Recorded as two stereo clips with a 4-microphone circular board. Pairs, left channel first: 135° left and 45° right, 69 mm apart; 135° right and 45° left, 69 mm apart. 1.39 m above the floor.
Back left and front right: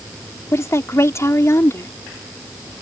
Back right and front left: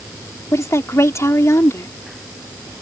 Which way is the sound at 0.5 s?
Straight behind.